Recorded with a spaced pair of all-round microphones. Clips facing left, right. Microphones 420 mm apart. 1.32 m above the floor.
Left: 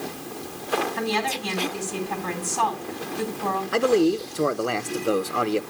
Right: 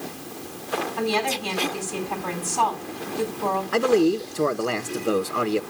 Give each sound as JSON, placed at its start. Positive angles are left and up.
{"t": 1.0, "sound": "a woman speaking", "side_deg": 35, "distance_m": 5.5}
{"t": 3.7, "sound": "a man speaking", "side_deg": 0, "distance_m": 0.8}